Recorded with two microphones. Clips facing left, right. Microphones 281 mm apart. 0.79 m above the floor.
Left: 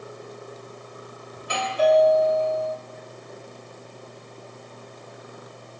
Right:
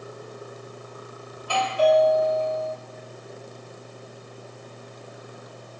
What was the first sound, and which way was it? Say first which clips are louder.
A doorbell: right 1 dB; 20° left (ahead or behind).